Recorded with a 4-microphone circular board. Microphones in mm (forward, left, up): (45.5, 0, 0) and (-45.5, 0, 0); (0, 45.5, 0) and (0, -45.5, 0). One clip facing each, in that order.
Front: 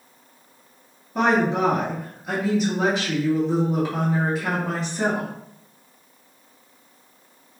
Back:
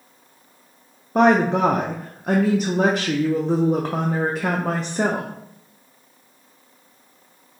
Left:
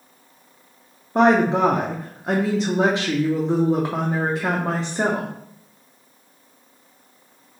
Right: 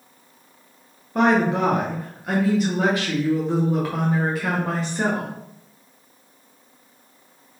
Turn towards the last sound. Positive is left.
turn(degrees=150)